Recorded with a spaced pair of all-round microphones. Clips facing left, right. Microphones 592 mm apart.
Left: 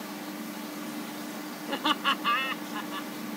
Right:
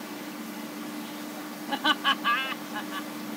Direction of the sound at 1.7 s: 15° right (ahead or behind).